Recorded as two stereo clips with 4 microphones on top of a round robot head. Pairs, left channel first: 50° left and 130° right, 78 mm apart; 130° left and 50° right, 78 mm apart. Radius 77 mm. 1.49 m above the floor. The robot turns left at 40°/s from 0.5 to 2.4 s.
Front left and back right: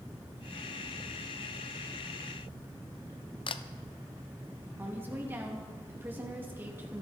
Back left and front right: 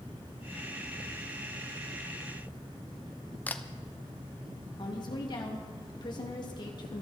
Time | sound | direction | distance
3.5 | a camera shutter | 55° left | 0.9 m
4.8 | a woman speaking | 165° left | 3 m